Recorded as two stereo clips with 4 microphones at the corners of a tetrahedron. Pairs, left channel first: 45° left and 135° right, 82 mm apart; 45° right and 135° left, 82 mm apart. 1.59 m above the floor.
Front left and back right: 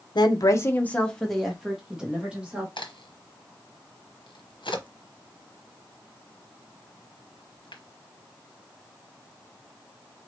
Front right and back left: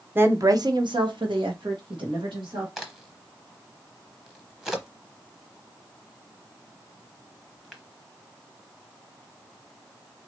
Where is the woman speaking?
70° left, 0.9 m; by 2.7 s 150° left, 2.5 m.